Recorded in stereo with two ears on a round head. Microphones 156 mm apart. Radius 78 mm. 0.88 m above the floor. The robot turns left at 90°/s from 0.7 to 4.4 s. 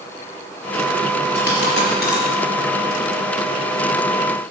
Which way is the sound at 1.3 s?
60° left (ahead or behind).